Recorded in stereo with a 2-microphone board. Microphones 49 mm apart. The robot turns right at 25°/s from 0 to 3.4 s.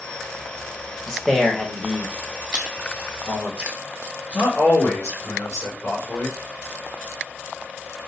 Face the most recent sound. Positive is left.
turn(degrees=75)  # may be behind; listen again after turning